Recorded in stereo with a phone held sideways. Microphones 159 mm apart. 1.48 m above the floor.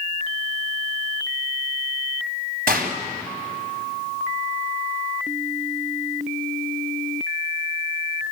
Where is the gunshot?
75° right (ahead or behind), 3 m.